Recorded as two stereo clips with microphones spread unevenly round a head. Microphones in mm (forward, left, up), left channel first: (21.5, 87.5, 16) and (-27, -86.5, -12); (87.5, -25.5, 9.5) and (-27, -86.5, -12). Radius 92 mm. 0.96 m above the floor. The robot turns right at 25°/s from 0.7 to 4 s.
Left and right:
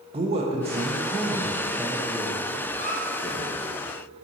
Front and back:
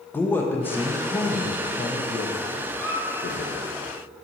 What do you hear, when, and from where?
0.1 s a man speaking: 50° right, 0.6 m; by 3.7 s 25° left, 0.6 m
2.7 s a squeak: 95° left, 0.9 m; by 3.0 s 100° left, 0.9 m